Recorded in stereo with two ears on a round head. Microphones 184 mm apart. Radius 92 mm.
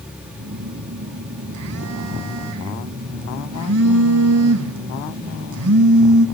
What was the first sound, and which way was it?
A phone buzzing, 75° right (ahead or behind).